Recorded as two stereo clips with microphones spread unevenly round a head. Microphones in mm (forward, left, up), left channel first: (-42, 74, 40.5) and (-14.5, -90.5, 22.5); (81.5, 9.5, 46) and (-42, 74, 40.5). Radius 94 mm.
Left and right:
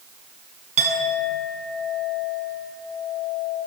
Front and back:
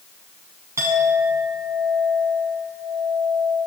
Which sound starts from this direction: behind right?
A clink, at 0.8 s.